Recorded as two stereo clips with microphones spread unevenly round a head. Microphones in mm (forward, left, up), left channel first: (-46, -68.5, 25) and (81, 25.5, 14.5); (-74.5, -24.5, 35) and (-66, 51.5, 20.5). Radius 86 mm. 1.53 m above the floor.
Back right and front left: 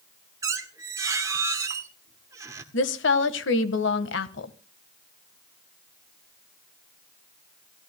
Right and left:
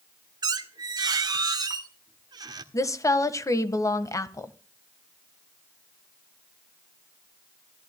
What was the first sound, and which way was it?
A squeak, 110° left.